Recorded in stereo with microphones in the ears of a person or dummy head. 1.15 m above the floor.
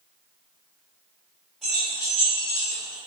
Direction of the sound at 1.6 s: 5° left (ahead or behind).